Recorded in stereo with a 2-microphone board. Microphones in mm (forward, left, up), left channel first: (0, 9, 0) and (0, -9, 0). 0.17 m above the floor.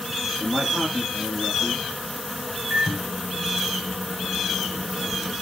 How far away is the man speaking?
About 8 m.